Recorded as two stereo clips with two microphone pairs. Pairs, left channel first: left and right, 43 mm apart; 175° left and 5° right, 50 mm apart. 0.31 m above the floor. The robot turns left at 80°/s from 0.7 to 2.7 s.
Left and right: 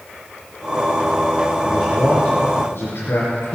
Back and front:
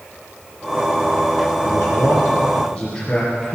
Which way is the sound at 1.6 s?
170° right.